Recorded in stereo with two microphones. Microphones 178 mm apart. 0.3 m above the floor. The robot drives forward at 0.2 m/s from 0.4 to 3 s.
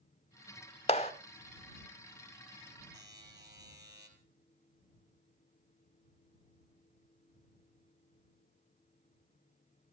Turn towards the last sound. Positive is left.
turn(degrees=-70)  # may be behind; listen again after turning